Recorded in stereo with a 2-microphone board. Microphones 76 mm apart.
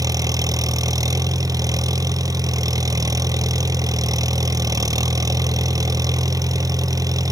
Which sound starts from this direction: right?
An engine running, at 0.0 s.